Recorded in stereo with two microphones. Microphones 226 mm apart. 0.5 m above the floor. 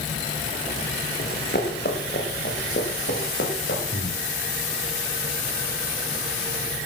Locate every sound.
1.2 s running footsteps: 45° left (ahead or behind), 4 m; by 3.8 s 55° left (ahead or behind), 5.5 m
3.9 s breathing: 45° left (ahead or behind), 5.5 m